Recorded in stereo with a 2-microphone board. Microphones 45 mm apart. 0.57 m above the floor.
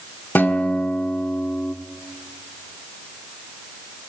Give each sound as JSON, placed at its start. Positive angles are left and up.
{"t": 0.3, "sound": "a guitar", "side_deg": 50, "distance_m": 1.8}